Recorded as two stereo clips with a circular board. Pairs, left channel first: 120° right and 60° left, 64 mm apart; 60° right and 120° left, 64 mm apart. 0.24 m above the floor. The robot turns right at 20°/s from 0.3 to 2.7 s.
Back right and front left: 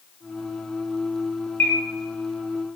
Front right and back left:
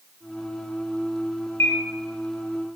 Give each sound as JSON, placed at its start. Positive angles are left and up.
{"t": 1.6, "sound": "a bird", "azimuth_deg": -80, "distance_m": 2.0}